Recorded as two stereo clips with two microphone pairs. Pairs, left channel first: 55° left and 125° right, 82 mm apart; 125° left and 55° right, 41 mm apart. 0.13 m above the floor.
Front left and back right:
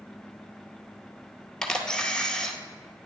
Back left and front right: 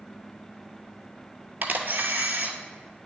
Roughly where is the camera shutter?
Ahead.